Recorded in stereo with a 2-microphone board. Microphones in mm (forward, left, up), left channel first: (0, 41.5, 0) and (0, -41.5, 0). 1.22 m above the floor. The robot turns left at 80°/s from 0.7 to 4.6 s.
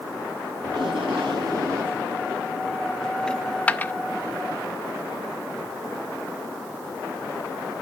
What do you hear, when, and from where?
0.6 s tape being pulled: 60° right, 6 m; by 2.1 s 165° right, 6 m
3.3 s a dropped coin: 10° left (ahead or behind), 0.5 m; by 3.9 s 20° left (ahead or behind), 0.5 m